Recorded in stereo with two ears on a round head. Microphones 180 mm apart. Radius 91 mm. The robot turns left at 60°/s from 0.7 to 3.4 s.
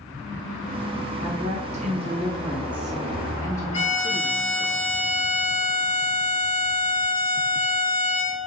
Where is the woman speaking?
75° right, 0.9 m; by 4.7 s 155° left, 0.9 m.